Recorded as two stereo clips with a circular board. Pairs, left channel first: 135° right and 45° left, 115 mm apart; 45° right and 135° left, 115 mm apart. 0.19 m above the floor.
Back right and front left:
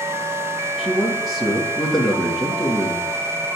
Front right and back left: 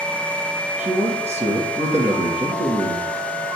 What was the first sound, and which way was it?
A man speaking, 135° left.